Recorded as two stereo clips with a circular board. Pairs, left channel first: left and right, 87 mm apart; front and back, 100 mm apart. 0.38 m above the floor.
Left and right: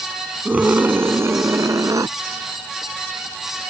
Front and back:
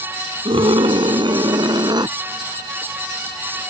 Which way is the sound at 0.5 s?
160° right.